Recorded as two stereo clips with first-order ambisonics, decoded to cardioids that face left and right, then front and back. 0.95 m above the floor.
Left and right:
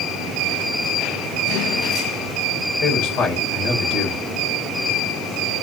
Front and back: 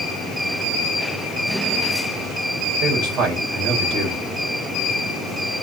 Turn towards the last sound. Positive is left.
turn(degrees=135)